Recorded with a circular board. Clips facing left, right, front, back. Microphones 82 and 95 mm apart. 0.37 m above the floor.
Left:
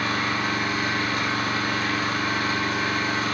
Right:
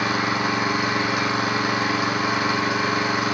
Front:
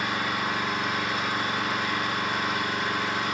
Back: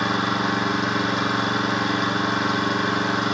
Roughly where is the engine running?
Behind.